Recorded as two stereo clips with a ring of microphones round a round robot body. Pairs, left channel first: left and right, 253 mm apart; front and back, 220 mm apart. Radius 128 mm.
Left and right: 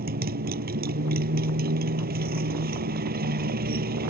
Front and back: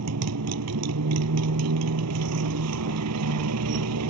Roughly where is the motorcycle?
Behind right.